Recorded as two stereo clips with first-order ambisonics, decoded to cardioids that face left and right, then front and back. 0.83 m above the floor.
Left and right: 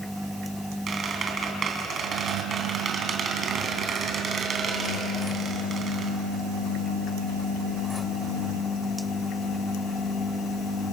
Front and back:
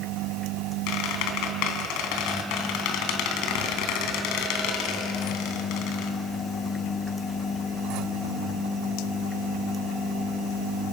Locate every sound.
0.9 s a squeak: 25° right, 3 m